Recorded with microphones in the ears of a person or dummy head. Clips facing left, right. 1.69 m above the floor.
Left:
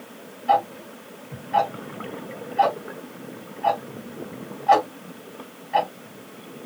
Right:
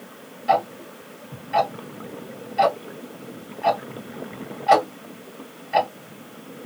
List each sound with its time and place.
0.5 s ticking: 45° right (ahead or behind), 1.9 m